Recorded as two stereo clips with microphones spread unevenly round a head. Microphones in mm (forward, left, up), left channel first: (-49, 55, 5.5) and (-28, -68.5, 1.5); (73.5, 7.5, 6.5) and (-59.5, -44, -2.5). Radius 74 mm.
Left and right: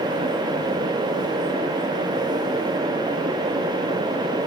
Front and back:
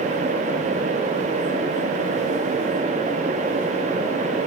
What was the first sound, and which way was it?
Only background noise.